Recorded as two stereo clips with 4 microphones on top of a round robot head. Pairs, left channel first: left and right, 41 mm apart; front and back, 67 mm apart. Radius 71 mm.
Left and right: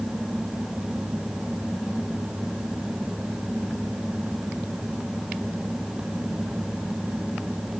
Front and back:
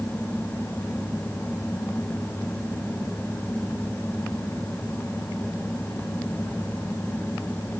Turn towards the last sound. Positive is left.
No sound to turn to.